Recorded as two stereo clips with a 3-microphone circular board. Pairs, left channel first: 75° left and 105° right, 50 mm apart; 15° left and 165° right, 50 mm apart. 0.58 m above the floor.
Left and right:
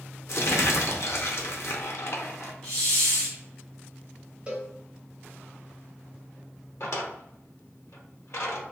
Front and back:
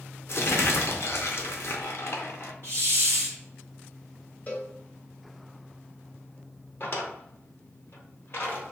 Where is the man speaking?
I don't hear a man speaking.